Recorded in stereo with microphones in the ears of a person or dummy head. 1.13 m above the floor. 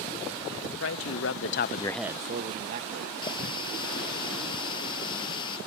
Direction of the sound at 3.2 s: 25° left (ahead or behind).